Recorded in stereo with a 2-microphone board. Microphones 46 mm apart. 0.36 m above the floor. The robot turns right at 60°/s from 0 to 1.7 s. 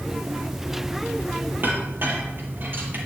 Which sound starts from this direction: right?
A clink, at 1.6 s.